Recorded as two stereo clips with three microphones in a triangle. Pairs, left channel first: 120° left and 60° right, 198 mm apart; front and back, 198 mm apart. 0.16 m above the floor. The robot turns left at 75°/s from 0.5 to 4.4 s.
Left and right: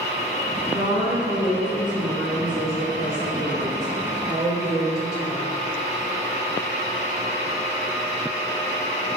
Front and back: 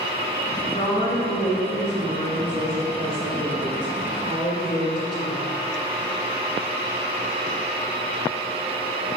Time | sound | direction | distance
0.7 | a woman speaking | 25° right | 1.6 m